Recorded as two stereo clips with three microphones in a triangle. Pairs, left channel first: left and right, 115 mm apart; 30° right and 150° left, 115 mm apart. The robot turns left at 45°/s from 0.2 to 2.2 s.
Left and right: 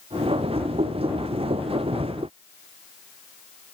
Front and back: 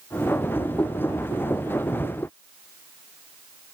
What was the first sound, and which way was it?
Only background noise.